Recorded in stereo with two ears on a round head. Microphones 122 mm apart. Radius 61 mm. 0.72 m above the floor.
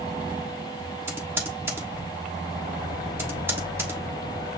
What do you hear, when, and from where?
1.1 s typing on a keyboard: 20° right (ahead or behind), 1.3 m